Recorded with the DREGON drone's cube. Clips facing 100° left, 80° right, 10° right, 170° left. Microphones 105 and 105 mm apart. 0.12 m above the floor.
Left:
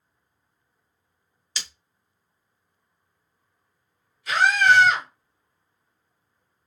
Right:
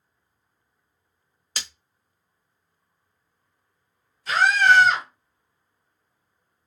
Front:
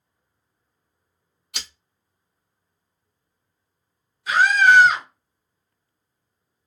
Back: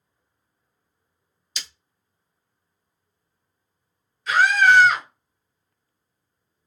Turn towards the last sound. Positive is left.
turn(degrees=-70)